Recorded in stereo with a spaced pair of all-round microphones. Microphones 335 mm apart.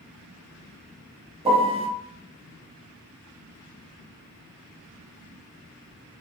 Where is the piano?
15° right (ahead or behind), 0.8 m.